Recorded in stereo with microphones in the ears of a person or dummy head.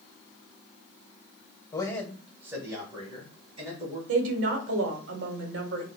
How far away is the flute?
I don't hear a flute.